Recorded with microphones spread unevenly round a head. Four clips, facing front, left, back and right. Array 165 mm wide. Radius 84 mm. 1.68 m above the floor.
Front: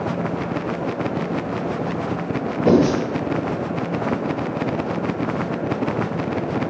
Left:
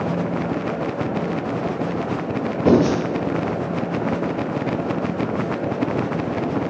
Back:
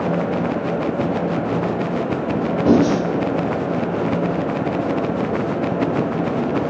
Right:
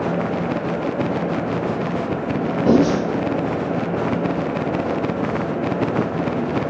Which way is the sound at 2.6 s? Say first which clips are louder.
Even, even; 85° left.